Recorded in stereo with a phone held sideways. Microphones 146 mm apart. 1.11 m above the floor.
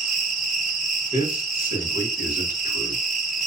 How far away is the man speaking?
About 1.2 m.